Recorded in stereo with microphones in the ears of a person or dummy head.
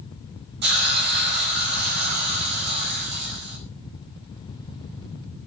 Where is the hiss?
60° right (ahead or behind), 5 m.